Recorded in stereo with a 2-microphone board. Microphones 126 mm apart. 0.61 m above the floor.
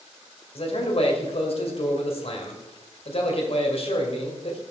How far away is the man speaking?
About 2.5 m.